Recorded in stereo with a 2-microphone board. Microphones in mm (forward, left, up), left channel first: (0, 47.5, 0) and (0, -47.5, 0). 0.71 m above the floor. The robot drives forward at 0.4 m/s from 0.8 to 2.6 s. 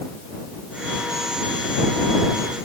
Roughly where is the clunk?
No clunk in this recording.